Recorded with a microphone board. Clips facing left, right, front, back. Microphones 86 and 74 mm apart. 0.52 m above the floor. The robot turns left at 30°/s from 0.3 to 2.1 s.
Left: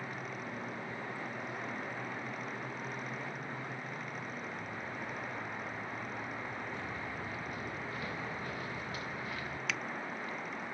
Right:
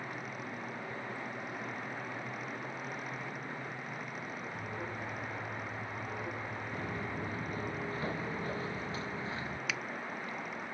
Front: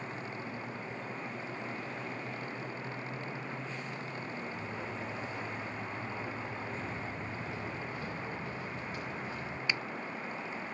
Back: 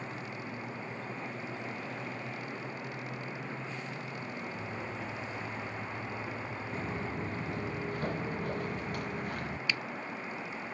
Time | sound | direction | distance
4.5 | an alarm | 95° right | ?
6.7 | footsteps | 140° right | ?
9.7 | a finger snap | 5° right | ?